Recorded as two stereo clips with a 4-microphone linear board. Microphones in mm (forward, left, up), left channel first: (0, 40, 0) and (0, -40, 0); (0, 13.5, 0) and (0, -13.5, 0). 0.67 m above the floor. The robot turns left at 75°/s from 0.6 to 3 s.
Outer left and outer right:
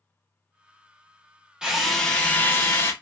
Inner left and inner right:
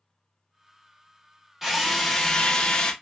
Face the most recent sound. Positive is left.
turn(degrees=95)